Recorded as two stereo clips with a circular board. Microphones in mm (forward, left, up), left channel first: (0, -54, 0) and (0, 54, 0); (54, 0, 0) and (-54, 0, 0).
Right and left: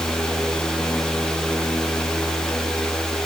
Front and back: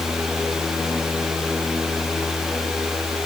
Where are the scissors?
No scissors in this recording.